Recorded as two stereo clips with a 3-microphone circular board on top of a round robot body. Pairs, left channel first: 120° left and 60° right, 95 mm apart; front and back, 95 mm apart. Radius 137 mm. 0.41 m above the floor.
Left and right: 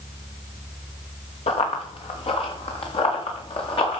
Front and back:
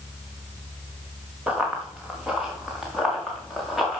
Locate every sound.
1.5 s running footsteps: 100° left, 3 m; by 4.0 s 90° left, 4.5 m